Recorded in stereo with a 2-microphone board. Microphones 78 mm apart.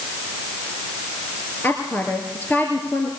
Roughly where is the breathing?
No breathing in this recording.